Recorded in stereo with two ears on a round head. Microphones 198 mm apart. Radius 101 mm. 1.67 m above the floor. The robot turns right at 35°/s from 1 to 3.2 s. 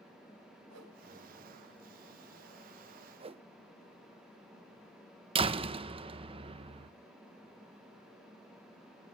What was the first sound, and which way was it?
A whoosh, 80° right.